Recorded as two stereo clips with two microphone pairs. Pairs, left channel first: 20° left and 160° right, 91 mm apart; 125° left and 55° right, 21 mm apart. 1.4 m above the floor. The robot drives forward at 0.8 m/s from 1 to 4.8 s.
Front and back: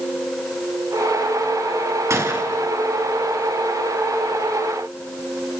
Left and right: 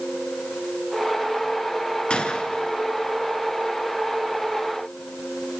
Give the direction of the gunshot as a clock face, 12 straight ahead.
7 o'clock.